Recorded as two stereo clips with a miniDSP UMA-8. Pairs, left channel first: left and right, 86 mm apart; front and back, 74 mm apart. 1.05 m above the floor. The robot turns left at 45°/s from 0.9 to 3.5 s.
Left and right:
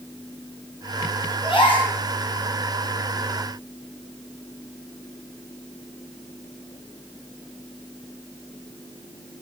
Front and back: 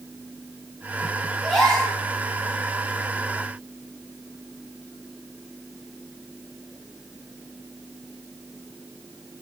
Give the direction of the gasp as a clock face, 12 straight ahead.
9 o'clock.